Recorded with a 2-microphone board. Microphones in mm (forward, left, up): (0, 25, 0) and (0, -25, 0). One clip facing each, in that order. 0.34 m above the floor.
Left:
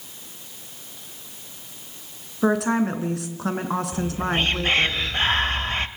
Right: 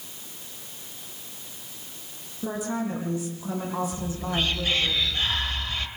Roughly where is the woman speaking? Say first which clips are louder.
Left 9 dB; left.